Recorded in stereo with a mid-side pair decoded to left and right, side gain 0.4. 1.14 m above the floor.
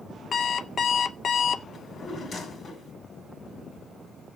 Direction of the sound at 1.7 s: 65° left.